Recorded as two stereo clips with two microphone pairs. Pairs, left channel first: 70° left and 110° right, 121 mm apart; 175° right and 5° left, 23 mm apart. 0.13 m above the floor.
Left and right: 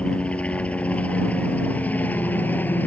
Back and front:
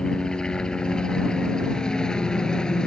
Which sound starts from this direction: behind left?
A helicopter, at 0.0 s.